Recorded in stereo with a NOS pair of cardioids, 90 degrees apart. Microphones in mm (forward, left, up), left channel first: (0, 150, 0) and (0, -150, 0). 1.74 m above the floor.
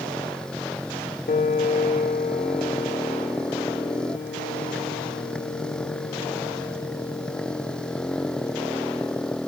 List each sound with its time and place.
0.0 s a motorcycle: 5° left
1.3 s a piano: 30° left